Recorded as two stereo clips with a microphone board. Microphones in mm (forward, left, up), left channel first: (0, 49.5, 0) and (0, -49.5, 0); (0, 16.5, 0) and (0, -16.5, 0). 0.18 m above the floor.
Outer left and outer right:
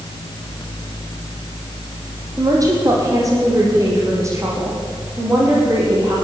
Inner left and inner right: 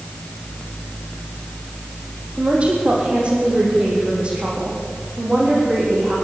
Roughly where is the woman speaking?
Right.